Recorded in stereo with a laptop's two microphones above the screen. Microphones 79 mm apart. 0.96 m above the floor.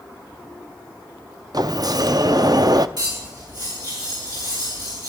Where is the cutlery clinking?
60° right (ahead or behind), 8.5 m.